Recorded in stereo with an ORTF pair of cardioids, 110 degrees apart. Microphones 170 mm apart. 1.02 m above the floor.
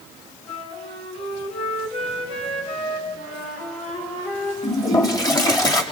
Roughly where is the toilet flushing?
Ahead left.